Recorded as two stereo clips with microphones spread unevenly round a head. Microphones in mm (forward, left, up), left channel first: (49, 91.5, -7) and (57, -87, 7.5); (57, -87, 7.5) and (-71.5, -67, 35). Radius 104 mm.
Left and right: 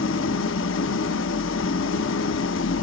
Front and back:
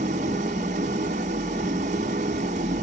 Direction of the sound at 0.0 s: 115° left.